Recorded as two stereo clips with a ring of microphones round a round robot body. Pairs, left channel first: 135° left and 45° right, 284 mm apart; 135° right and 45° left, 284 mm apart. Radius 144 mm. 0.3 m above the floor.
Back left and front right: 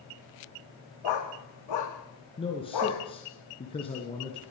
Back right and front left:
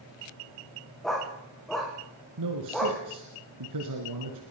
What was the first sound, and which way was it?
A dog barking, 135° left.